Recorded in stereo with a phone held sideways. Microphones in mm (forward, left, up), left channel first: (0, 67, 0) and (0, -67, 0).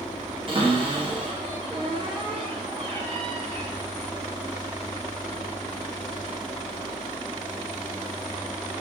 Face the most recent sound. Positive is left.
turn(degrees=-35)  # may be behind; listen again after turning